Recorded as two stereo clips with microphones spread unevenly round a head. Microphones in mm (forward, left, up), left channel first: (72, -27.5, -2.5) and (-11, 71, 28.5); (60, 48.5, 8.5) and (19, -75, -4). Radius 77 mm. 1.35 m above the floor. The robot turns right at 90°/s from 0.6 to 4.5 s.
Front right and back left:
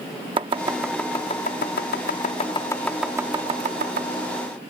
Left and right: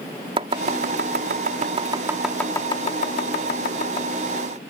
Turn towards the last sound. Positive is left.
turn(degrees=180)